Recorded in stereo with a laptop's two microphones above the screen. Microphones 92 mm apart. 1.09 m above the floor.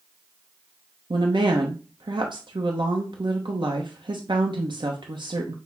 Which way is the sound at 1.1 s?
60° right (ahead or behind).